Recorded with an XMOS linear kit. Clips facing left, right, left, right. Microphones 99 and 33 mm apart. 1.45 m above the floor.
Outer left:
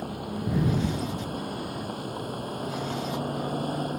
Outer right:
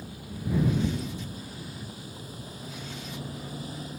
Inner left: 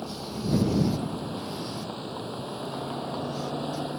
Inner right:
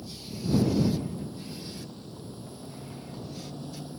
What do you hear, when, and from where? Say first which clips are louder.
0.0 s a vehicle: outer left 6 dB, inner left 4 dB; 60° left (ahead or behind); by 4.0 s 55° left (ahead or behind)